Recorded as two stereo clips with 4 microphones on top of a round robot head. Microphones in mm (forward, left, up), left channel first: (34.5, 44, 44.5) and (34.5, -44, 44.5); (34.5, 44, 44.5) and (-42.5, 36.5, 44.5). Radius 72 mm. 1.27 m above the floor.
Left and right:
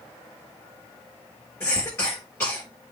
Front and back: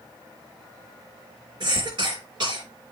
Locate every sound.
1.6 s a cough: 160° left, 5.5 m